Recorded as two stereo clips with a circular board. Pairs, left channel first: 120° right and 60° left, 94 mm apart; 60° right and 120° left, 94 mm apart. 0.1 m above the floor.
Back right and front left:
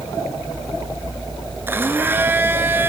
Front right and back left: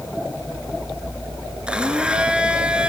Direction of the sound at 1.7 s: 60° left.